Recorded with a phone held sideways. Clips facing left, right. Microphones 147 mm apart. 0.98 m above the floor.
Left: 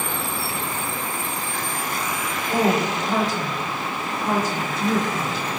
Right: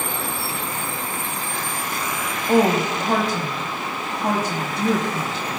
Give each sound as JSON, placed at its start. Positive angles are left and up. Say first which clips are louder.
{"t": 2.5, "sound": "a woman speaking", "louder": "right 4 dB", "side_deg": -75, "distance_m": 4.5}